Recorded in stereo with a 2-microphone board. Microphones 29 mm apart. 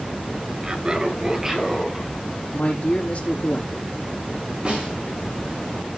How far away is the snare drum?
About 7.5 m.